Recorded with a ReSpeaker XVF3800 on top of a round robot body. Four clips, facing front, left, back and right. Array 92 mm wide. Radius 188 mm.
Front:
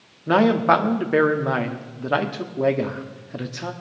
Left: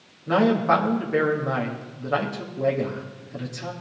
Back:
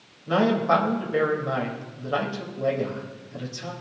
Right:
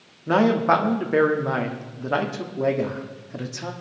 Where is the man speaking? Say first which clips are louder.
Right 1 dB, front 4 dB; 20° right, 1.8 m.